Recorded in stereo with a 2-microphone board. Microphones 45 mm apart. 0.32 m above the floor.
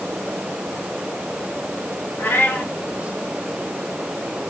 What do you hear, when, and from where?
2.2 s a cat meowing: 65° left (ahead or behind), 5 m